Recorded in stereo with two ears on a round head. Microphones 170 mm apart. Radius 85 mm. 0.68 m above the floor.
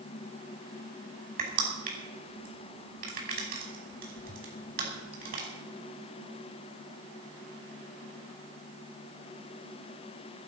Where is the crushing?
50° right (ahead or behind), 5.5 m.